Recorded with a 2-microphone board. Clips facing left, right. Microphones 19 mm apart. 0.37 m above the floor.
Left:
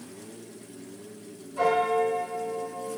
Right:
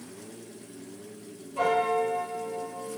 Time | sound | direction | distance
1.6 | a piano | 30° right (ahead or behind) | 1.8 m